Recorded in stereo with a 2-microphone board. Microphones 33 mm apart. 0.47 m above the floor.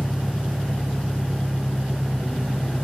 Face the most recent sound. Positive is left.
turn(degrees=20)  # may be behind; listen again after turning